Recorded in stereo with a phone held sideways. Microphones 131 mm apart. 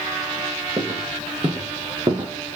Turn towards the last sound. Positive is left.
turn(degrees=-35)  # may be behind; listen again after turning